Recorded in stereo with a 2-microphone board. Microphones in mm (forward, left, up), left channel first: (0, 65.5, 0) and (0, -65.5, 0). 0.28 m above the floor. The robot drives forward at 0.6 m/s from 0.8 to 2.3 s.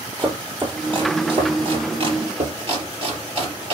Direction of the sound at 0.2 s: 35° right (ahead or behind).